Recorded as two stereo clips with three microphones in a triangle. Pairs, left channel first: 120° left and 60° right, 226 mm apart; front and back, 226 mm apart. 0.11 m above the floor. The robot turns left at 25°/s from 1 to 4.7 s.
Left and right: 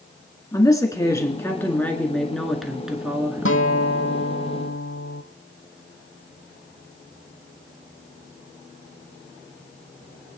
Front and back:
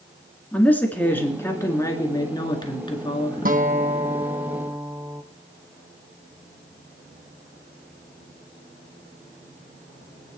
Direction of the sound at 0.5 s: 70° left.